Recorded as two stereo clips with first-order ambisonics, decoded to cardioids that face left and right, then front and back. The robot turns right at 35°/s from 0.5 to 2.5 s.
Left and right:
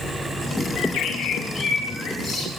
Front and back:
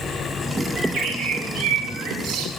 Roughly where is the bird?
Behind left.